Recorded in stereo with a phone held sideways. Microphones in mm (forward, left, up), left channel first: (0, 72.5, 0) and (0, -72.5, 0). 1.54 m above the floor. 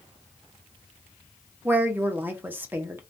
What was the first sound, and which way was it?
A woman speaking, 15° right (ahead or behind).